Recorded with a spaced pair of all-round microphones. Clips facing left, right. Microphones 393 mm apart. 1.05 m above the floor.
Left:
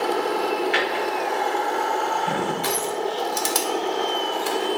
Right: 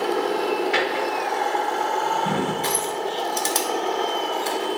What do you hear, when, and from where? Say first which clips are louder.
0.7 s a drawer: right 1 dB; 60° right (ahead or behind), 1.6 m
2.6 s crushing: left 1 dB; 20° left (ahead or behind), 0.8 m